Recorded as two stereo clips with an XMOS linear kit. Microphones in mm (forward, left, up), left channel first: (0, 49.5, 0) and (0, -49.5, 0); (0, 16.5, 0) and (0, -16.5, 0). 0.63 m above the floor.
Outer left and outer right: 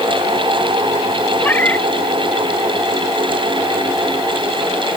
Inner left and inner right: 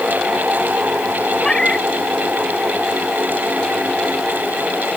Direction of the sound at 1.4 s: 20° left (ahead or behind).